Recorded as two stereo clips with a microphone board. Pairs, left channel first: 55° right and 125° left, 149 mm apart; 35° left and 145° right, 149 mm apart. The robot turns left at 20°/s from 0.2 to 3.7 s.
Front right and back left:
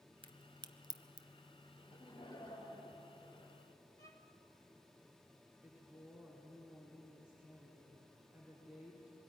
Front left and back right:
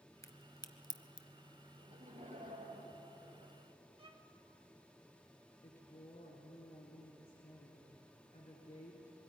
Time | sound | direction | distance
0.2 | a crack | 90° left | 0.9 m
1.8 | laughter | 105° right | 6 m
4.0 | a violin | 115° right | 1.6 m
5.6 | a woman speaking | 40° left | 3 m